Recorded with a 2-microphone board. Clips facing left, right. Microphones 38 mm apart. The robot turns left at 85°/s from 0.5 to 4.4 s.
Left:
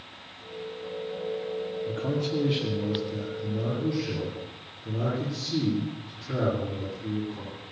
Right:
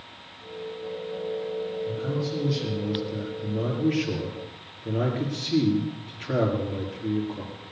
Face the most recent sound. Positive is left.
turn(degrees=-110)